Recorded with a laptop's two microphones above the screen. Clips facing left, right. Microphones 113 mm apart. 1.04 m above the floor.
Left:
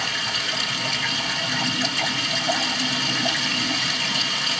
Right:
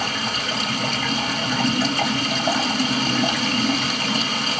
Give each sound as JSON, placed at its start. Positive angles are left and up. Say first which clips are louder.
{"t": 0.0, "sound": "running water", "louder": "right 4 dB", "side_deg": -45, "distance_m": 1.5}